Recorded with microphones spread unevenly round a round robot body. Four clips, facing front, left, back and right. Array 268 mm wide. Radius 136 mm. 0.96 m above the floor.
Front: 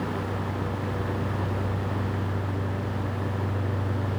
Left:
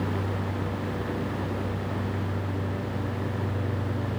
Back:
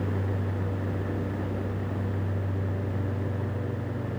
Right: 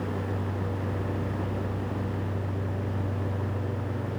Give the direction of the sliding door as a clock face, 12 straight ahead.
No sliding door in this recording.